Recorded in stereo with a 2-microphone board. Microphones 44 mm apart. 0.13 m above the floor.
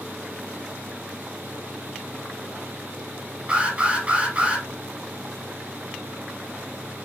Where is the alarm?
30° right (ahead or behind), 2.5 m.